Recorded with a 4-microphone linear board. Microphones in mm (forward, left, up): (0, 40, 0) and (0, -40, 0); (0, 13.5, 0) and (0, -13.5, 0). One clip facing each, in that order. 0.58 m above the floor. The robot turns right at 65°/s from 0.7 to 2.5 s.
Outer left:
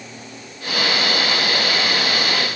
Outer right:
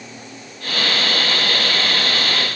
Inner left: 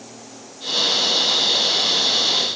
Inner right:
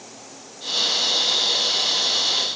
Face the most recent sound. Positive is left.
No sound to turn to.